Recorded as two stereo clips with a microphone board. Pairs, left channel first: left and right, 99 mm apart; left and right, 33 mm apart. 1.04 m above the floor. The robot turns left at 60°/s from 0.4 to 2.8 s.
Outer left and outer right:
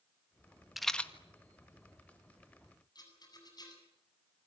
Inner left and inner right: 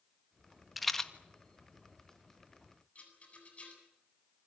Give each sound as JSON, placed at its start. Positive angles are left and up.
{"t": 0.8, "sound": "a rattle", "side_deg": 0, "distance_m": 1.6}
{"t": 3.0, "sound": "a rattle", "side_deg": 40, "distance_m": 8.5}